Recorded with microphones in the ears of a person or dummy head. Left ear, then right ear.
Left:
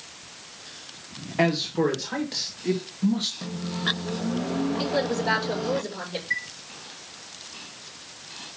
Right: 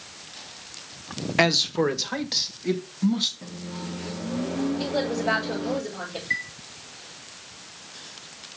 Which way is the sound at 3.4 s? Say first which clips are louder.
Left 9 dB; 80° left.